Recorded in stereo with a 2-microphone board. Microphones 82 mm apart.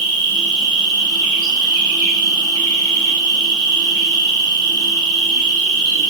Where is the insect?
65° right (ahead or behind), 0.8 m.